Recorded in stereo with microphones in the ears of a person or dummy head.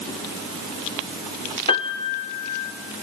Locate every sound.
1.7 s a piano: 35° left (ahead or behind), 1.6 m